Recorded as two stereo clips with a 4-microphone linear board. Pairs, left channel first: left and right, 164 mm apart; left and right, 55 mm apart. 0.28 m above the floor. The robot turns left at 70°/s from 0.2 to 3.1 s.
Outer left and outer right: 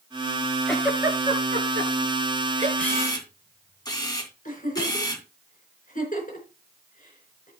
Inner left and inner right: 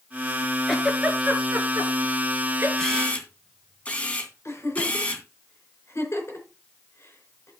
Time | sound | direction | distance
0.7 | a giggle | 5° left (ahead or behind) | 1.8 m
2.8 | a camera shutter | 5° left (ahead or behind) | 2.5 m
4.5 | a giggle | 60° left (ahead or behind) | 4 m